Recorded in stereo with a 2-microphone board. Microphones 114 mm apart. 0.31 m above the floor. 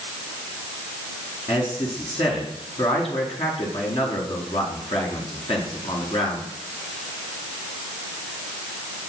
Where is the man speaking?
60° left (ahead or behind), 4.5 m.